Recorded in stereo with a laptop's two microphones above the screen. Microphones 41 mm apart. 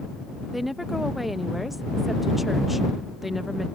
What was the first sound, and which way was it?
A woman speaking, 5° right (ahead or behind).